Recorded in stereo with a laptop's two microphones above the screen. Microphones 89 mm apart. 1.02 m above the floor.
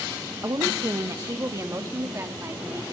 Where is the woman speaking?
40° right (ahead or behind), 1.0 m; by 2.8 s 30° right (ahead or behind), 2.5 m.